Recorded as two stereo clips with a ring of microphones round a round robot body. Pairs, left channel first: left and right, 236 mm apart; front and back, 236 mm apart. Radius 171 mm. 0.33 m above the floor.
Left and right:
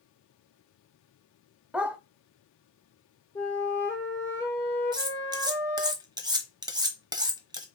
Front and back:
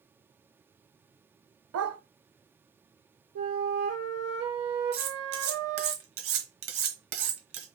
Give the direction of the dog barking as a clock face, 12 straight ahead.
6 o'clock.